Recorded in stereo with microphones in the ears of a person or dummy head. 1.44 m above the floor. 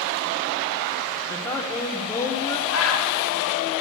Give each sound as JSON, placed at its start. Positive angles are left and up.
{"t": 1.3, "sound": "a woman speaking", "side_deg": 15, "distance_m": 1.1}
{"t": 2.7, "sound": "a bird", "side_deg": 80, "distance_m": 1.1}